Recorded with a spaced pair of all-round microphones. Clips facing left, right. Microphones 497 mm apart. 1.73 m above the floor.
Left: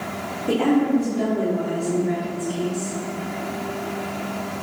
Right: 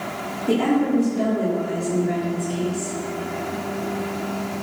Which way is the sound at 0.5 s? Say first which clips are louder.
Left 1 dB; 5° left (ahead or behind).